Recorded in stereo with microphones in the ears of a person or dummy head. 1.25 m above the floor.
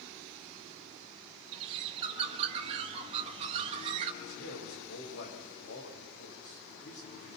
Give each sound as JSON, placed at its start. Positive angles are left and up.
{"t": 1.5, "sound": "a bird", "side_deg": -35, "distance_m": 1.3}
{"t": 4.2, "sound": "a man speaking", "side_deg": 55, "distance_m": 5.5}